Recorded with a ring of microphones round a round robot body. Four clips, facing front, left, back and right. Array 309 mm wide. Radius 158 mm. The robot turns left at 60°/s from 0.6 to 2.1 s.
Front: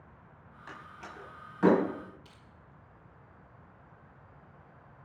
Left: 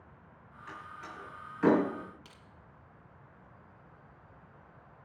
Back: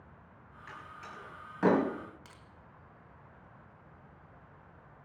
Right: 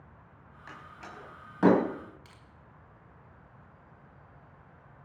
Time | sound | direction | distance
0.7 | a door slam | 35° right | 3.5 m
2.2 | crushing | 165° left | 2.0 m